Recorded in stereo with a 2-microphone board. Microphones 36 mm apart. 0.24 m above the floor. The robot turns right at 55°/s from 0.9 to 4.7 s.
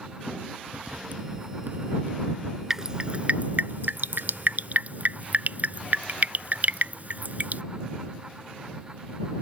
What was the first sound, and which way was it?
Writing, 40° right (ahead or behind).